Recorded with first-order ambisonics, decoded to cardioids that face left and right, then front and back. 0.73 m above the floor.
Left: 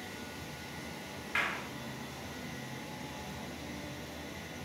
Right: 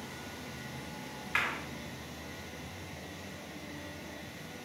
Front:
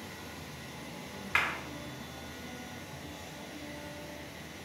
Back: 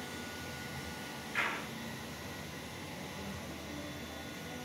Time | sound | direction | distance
1.4 | a clap | 15° right | 1.9 m